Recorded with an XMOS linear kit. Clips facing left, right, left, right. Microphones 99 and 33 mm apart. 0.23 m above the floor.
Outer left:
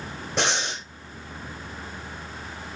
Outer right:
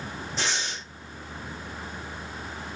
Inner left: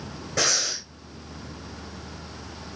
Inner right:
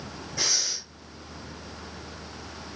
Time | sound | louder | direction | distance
0.4 | breathing | outer left 6 dB, inner left 5 dB | 70° left (ahead or behind) | 3.5 m